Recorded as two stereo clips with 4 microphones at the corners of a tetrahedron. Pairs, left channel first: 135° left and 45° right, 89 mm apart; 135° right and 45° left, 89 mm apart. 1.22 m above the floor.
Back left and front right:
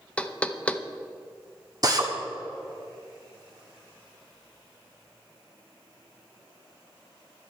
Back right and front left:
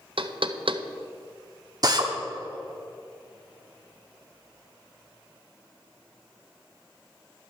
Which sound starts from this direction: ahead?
A drill, at 1.8 s.